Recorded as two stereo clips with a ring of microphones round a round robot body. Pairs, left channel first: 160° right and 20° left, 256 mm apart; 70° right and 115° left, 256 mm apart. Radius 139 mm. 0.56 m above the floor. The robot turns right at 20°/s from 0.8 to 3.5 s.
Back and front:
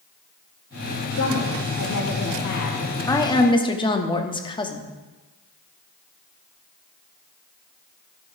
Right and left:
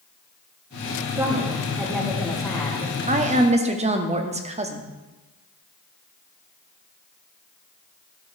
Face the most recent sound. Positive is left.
turn(degrees=150)